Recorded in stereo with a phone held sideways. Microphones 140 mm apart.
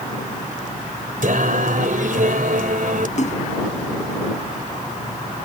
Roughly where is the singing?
Right.